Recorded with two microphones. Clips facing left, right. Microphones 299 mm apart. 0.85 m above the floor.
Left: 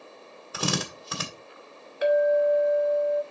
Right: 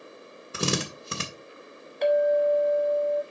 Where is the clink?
5° left (ahead or behind), 1.2 m.